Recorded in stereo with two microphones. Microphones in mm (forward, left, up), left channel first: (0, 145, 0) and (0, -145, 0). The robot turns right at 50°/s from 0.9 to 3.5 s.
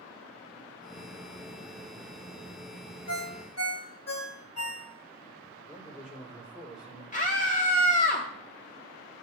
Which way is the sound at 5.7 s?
5° right (ahead or behind).